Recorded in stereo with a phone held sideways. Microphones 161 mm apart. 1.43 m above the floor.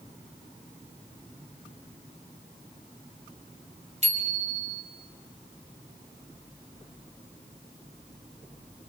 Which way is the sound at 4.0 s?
45° right (ahead or behind).